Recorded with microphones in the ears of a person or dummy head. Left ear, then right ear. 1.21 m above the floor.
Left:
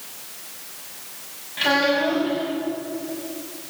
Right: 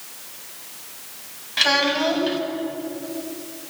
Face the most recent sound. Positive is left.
turn(degrees=-55)  # may be behind; listen again after turning